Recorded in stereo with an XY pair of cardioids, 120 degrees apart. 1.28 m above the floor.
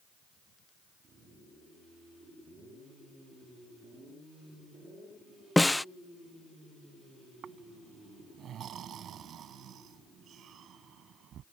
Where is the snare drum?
5° left.